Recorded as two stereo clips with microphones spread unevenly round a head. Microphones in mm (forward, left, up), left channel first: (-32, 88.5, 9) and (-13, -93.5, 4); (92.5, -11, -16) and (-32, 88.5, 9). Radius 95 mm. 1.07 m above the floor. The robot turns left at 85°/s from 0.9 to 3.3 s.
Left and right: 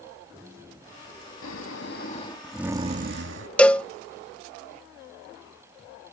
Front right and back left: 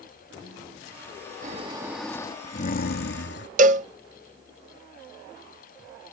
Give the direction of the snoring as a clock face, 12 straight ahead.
9 o'clock.